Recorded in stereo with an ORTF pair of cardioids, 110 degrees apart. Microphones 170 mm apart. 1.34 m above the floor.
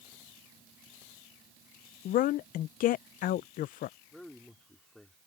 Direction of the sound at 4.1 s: 5° left.